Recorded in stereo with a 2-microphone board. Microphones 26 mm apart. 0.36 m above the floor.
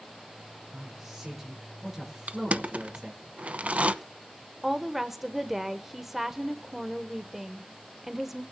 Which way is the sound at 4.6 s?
10° right (ahead or behind).